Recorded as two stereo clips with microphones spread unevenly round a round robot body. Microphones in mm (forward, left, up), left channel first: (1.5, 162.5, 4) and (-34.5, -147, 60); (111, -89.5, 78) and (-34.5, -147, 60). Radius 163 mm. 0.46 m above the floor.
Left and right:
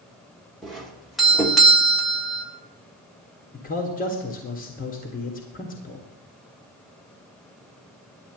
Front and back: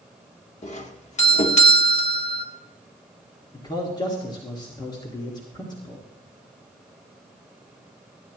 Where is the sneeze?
I don't hear a sneeze.